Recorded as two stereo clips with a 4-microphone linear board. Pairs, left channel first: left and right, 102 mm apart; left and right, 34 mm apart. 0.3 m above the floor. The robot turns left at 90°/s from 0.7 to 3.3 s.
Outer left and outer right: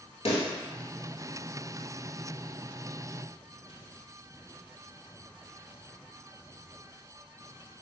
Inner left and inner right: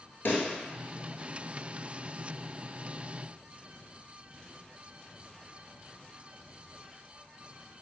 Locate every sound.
0.2 s a pop: 85° left, 0.9 m